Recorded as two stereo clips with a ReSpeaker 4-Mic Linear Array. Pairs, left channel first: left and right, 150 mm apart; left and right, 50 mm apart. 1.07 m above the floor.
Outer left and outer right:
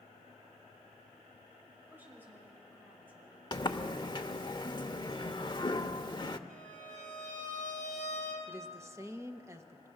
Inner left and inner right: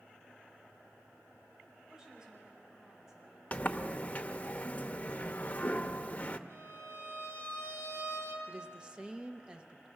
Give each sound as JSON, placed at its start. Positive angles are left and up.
{"t": 1.9, "sound": "a woman speaking", "side_deg": -15, "distance_m": 6.0}
{"t": 3.5, "sound": "a sliding door", "side_deg": 30, "distance_m": 0.8}
{"t": 6.5, "sound": "a violin", "side_deg": -60, "distance_m": 5.5}
{"t": 8.5, "sound": "a woman speaking", "side_deg": -20, "distance_m": 1.1}